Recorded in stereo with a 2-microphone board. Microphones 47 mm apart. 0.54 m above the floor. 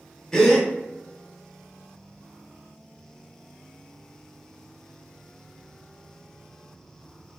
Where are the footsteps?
I don't hear footsteps.